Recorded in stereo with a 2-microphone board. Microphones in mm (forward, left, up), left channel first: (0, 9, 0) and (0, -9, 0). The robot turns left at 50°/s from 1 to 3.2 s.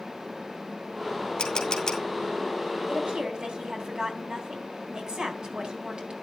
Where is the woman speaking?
55° right (ahead or behind), 3.5 m; by 6.1 s 45° right (ahead or behind), 3.5 m.